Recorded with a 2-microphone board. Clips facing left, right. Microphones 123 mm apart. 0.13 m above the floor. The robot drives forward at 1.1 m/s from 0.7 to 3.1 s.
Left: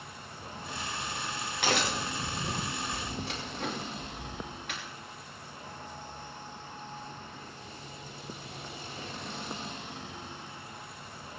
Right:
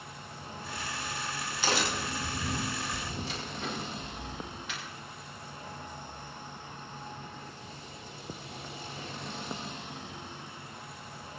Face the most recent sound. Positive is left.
turn(degrees=55)  # may be behind; listen again after turning